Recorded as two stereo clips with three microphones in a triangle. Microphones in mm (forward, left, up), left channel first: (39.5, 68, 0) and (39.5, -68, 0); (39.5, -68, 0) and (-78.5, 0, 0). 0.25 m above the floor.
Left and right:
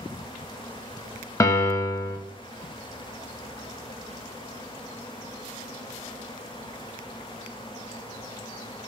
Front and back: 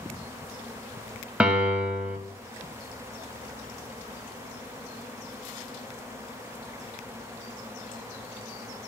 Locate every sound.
1.4 s a piano: 80° left, 0.6 m